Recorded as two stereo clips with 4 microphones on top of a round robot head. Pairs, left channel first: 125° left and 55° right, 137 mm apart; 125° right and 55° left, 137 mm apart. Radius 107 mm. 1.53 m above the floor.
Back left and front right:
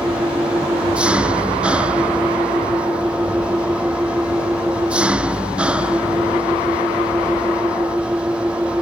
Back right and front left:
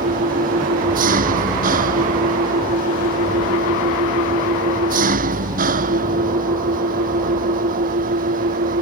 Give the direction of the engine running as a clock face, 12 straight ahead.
11 o'clock.